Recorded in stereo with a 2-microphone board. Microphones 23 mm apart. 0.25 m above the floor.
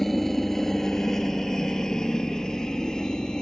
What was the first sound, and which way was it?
A helicopter, 10° left (ahead or behind).